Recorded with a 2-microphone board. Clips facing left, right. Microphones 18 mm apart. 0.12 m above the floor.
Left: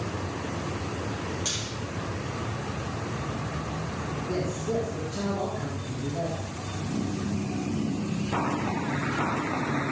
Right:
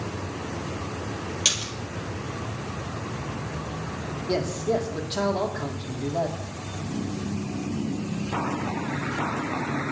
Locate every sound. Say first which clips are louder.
1.4 s a splash: right 10 dB; 55° right (ahead or behind), 2.5 m
4.3 s a man speaking: right 5 dB; 70° right (ahead or behind), 4.5 m